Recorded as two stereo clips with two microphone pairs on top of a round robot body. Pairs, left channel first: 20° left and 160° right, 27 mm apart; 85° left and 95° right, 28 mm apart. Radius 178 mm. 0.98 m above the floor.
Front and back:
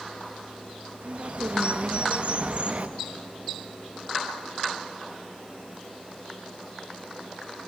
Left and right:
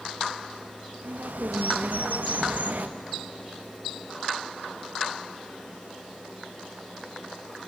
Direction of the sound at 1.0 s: 115° right.